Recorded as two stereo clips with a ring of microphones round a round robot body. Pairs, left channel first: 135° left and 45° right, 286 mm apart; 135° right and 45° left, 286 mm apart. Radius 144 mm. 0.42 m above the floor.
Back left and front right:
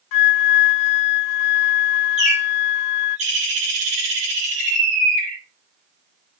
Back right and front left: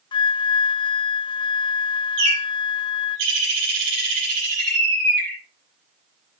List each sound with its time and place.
0.1 s a flute: 150° left, 0.7 m
2.2 s a bird: 20° left, 6 m